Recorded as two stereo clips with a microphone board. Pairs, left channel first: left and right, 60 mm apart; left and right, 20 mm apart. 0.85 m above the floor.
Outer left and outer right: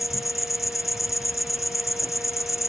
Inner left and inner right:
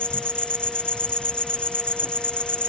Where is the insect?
70° left (ahead or behind).